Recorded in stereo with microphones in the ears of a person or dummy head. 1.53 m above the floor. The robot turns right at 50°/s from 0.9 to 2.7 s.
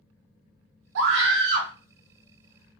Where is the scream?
90° right, 0.9 m; by 1.7 s 50° right, 0.9 m.